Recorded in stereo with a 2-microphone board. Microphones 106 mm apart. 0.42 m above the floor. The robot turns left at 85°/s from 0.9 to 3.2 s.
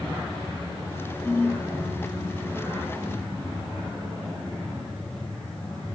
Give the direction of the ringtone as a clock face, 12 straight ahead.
6 o'clock.